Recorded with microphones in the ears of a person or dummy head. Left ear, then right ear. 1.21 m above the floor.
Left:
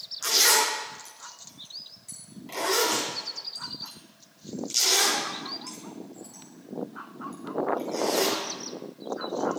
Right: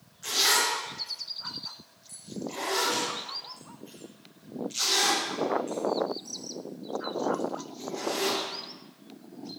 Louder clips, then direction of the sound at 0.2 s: Left 3 dB; 85° left.